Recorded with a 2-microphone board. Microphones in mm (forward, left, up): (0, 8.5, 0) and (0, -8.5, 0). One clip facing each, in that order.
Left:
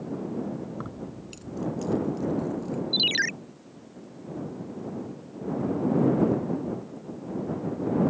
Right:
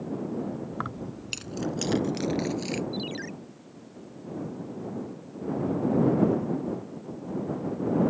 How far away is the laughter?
No laughter in this recording.